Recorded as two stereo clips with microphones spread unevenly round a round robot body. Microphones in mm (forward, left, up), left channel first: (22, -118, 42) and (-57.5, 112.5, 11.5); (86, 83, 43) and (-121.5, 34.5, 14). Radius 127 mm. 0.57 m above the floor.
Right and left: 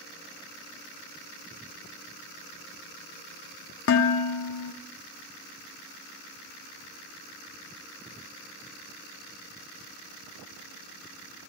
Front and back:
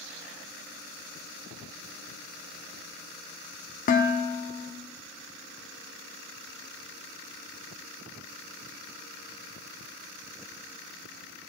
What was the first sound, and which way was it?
Dishes clattering, 40° right.